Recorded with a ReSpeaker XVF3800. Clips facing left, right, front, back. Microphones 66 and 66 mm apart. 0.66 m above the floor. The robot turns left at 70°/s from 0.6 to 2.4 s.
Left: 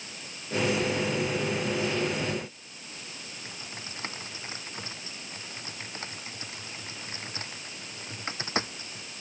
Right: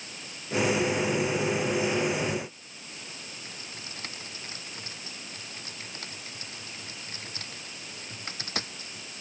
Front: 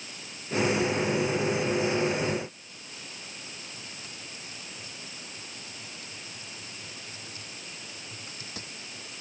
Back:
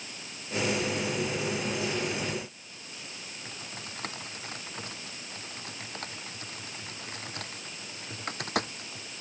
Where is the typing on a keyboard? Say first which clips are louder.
Left 1 dB, back 2 dB; 155° left.